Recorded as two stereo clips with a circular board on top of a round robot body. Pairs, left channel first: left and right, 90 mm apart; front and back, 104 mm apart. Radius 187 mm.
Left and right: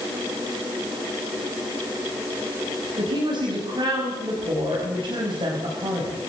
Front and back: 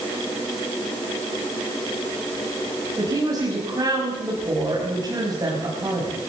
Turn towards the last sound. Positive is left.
turn(degrees=-125)